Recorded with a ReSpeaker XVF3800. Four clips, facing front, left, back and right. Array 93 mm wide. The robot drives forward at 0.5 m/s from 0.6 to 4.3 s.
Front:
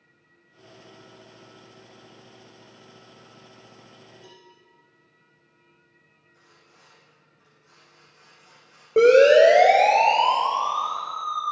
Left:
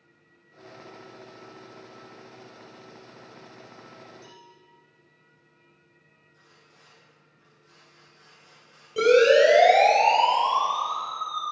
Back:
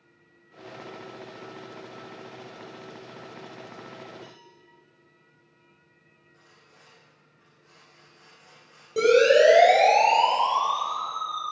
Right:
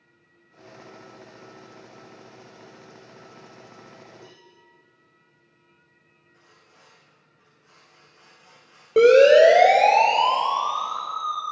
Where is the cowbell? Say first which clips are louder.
Even, back 2 dB; 150° right, 3.5 m; by 4.5 s 155° right, 3.5 m.